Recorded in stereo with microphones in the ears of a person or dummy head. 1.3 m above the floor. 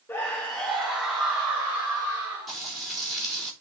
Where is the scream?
15° left (ahead or behind), 0.9 m; by 2.6 s 5° right (ahead or behind), 2.0 m.